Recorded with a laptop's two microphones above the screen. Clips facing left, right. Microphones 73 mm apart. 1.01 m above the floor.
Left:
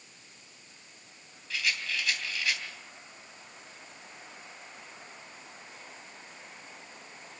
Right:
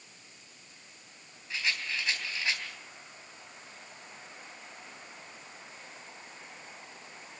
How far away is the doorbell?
I don't hear a doorbell.